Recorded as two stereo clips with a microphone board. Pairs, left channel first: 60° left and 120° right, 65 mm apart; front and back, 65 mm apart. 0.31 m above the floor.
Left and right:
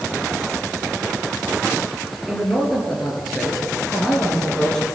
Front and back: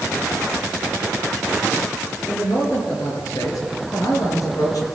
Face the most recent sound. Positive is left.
turn(degrees=-20)